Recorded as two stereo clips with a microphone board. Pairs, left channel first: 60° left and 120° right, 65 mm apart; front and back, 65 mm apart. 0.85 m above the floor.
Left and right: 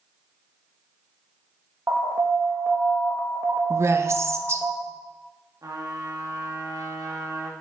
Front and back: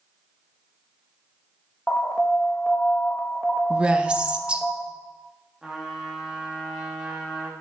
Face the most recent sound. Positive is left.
turn(degrees=-100)